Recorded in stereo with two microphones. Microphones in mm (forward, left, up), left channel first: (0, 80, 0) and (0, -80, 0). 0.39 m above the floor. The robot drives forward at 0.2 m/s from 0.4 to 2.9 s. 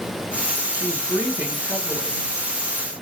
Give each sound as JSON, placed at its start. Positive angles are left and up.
{"t": 0.7, "sound": "a woman speaking", "side_deg": -15, "distance_m": 0.9}